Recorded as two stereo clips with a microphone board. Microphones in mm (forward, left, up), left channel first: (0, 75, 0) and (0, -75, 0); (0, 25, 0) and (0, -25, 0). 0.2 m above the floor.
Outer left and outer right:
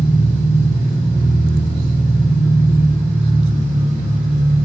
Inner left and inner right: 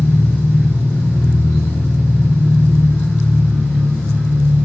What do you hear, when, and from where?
0.0 s an engine running: 50° left (ahead or behind), 7 m